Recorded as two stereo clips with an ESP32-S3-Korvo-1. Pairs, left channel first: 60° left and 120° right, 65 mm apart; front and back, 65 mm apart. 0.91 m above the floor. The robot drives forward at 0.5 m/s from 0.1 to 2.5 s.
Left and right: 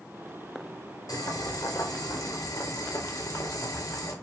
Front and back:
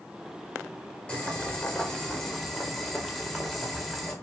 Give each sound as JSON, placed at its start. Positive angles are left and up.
{"t": 1.1, "sound": "boiling", "azimuth_deg": 70, "distance_m": 3.0}